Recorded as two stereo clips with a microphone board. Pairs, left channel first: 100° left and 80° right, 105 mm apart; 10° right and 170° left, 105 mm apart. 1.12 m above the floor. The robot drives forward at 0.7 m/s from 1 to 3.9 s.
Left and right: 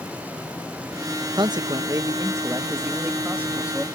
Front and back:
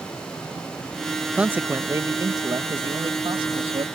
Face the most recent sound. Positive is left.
turn(degrees=-155)